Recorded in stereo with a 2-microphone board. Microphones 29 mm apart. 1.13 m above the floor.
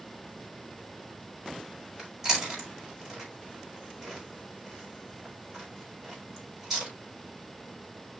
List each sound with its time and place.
2.0 s chewing: 5° right (ahead or behind), 5 m